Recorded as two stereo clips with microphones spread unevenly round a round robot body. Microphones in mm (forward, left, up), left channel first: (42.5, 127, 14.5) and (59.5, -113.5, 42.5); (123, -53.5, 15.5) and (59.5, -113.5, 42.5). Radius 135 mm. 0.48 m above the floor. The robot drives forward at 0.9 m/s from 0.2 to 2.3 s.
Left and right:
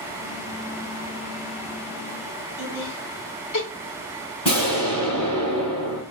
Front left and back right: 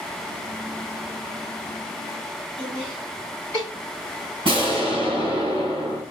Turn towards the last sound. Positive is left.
turn(degrees=160)